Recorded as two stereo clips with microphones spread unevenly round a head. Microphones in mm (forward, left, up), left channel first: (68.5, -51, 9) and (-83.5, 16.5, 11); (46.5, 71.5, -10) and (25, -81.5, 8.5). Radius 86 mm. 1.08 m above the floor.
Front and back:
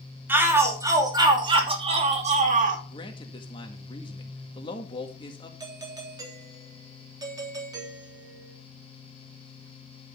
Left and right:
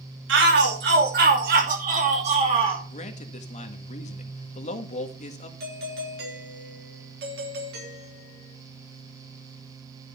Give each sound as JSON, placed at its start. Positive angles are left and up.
{"t": 0.3, "sound": "a shout", "azimuth_deg": -125, "distance_m": 2.5}
{"t": 2.9, "sound": "a man speaking", "azimuth_deg": 40, "distance_m": 1.6}
{"t": 5.6, "sound": "a doorbell", "azimuth_deg": -135, "distance_m": 3.0}